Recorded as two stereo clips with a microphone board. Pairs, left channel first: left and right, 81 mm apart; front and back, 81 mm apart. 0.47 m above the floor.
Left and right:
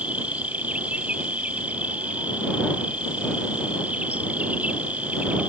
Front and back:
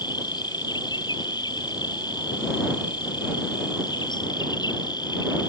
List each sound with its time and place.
0.0 s an insect: 20° right